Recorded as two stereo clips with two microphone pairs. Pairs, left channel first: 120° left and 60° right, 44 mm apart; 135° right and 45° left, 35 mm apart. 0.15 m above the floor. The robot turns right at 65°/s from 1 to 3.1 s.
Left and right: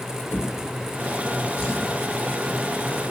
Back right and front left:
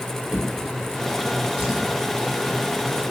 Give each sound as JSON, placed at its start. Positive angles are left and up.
{"t": 0.3, "sound": "a drawer", "azimuth_deg": 75, "distance_m": 1.4}